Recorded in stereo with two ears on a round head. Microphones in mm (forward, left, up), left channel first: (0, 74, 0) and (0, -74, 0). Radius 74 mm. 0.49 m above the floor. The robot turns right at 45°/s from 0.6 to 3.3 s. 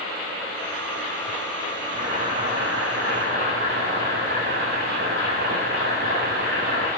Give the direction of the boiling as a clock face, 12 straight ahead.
5 o'clock.